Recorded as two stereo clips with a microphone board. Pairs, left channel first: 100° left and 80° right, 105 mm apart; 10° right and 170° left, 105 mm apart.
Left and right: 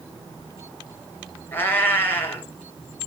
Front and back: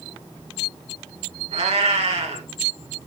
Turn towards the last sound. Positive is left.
turn(degrees=170)